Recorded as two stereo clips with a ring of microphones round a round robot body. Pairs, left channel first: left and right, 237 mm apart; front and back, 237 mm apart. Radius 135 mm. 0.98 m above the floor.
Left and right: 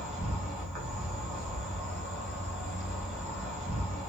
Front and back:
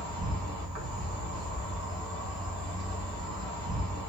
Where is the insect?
150° right, 2.0 m.